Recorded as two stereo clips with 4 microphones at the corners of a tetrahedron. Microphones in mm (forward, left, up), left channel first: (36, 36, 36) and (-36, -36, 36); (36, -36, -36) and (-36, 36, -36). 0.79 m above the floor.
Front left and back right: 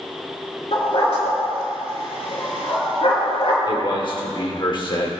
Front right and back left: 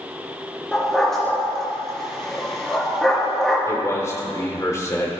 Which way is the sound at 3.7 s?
10° left.